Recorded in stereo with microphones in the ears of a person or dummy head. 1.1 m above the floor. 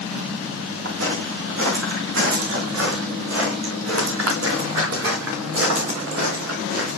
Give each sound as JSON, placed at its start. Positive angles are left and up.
{"t": 0.8, "sound": "footsteps", "side_deg": -70, "distance_m": 4.0}